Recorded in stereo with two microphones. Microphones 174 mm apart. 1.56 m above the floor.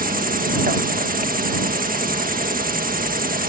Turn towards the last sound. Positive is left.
turn(degrees=-55)  # may be behind; listen again after turning